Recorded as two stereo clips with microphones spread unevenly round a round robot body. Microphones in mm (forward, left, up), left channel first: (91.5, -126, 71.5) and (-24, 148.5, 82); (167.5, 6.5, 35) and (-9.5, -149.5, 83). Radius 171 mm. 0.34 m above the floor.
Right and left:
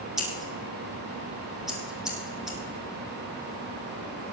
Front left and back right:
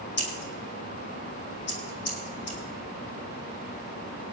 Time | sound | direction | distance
0.2 | scissors | 25° left | 3 m